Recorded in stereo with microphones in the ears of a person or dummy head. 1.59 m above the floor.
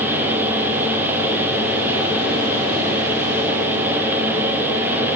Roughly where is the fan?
Centre.